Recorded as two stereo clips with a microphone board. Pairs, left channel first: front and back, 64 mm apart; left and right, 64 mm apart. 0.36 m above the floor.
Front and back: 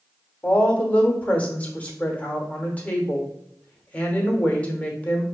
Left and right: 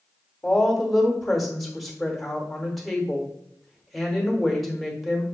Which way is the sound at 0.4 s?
5° left.